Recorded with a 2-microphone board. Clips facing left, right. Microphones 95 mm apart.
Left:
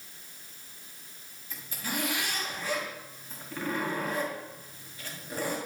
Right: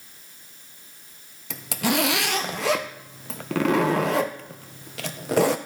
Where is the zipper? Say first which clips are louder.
Right 12 dB; 85° right, 0.9 m.